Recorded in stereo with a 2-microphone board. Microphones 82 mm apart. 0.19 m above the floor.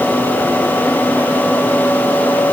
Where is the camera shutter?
No camera shutter in this recording.